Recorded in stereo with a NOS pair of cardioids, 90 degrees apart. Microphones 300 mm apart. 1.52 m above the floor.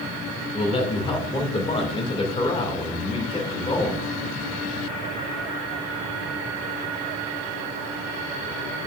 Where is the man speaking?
20° left, 2.5 m.